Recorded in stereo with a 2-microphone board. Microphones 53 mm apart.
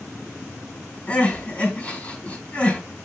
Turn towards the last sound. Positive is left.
turn(degrees=20)  # may be behind; listen again after turning